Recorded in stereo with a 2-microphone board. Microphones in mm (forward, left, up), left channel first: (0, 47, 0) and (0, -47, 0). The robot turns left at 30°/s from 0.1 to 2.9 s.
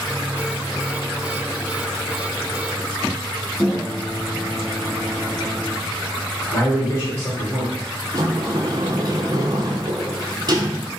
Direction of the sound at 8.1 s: 45° right (ahead or behind).